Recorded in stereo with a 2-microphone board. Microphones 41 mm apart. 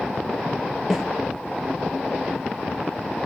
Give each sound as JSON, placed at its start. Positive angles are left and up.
{"t": 0.9, "sound": "a snare drum", "side_deg": 5, "distance_m": 3.0}